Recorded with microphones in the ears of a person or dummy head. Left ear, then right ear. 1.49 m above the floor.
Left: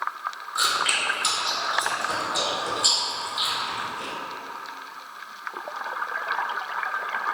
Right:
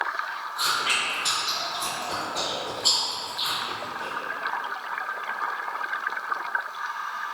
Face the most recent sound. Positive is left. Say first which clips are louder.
# left 2 dB
turn(degrees=45)  # may be behind; listen again after turning